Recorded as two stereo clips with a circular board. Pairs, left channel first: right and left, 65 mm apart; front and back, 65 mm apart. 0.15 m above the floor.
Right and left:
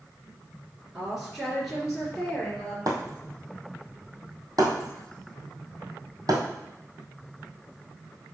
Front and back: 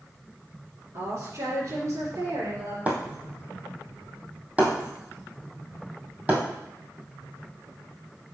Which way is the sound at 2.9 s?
115° left.